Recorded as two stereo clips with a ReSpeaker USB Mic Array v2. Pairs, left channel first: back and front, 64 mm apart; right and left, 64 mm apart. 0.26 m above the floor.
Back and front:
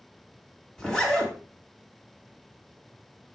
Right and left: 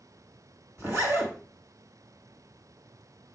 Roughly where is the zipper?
Left.